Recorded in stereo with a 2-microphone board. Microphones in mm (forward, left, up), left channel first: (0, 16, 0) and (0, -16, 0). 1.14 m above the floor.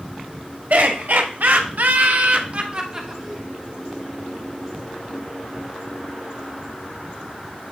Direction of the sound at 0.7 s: 75° right (ahead or behind).